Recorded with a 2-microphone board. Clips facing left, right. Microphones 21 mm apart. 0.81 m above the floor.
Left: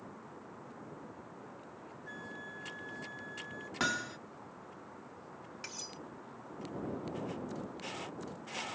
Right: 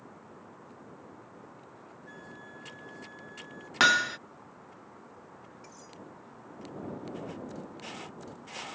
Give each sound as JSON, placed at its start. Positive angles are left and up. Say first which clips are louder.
{"t": 2.1, "sound": "a flute", "louder": "left 3 dB", "side_deg": 15}
{"t": 3.8, "sound": "hammering", "louder": "right 12 dB", "side_deg": -55}
{"t": 5.6, "sound": "cutlery clinking", "louder": "left 5 dB", "side_deg": 85}